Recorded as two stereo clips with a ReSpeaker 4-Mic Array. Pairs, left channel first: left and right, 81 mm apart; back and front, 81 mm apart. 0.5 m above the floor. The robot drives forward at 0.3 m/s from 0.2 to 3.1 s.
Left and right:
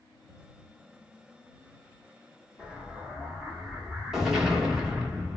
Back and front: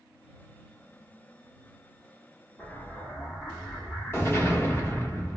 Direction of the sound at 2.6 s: 160° right.